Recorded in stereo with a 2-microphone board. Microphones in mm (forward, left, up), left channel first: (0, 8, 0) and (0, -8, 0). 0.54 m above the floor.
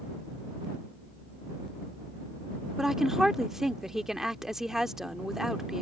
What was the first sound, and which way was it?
A woman speaking, 30° right (ahead or behind).